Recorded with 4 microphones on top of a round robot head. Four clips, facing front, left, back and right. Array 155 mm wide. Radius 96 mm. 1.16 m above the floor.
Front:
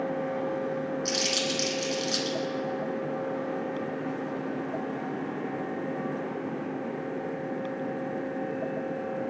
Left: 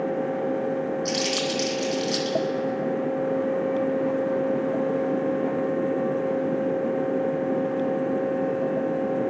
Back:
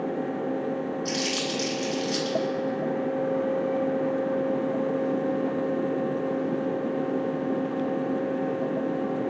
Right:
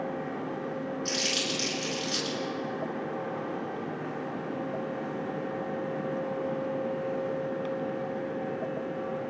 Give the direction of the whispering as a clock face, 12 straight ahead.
No whispering in this recording.